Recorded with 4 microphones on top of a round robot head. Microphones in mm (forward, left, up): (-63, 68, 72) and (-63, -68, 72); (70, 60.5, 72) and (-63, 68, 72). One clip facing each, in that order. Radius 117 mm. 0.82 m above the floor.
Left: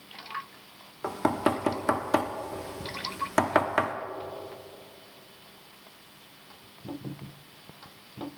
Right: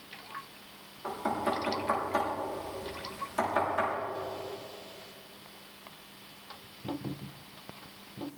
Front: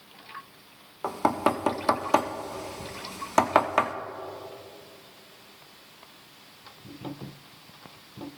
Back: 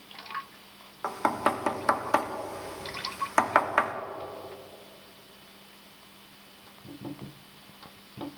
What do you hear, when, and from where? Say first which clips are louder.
1.0 s knocking: left 5 dB, front 3 dB; 65° left, 1.0 m